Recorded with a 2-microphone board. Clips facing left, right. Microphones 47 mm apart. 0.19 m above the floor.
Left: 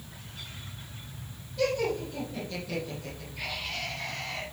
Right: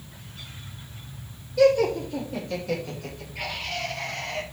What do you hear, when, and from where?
1.6 s laughter: 75° right (ahead or behind), 7 m; by 4.4 s 65° right (ahead or behind), 5.5 m